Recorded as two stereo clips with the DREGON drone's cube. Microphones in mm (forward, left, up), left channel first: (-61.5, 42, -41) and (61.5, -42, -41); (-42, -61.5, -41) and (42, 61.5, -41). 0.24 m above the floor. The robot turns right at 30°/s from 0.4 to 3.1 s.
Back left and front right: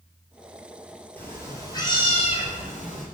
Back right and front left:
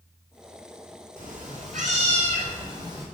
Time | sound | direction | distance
1.2 | a cat meowing | 65° left | 1.9 m